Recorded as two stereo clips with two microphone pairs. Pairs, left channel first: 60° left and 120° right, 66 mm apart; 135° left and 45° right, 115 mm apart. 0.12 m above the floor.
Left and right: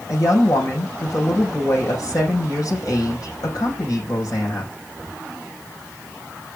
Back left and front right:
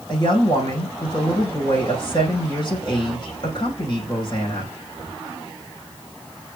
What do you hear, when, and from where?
0.1 s a woman speaking: 90° left, 6 m